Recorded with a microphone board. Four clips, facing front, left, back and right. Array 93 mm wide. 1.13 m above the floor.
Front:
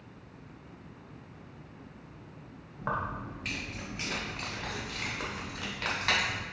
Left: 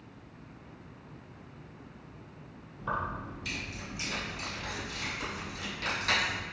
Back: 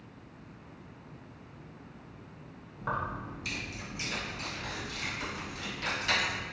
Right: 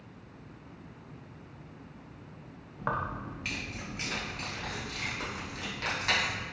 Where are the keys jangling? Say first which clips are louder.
Right 1 dB, front 1 dB; 75° right, 0.8 m; by 6.4 s 25° right, 2.5 m.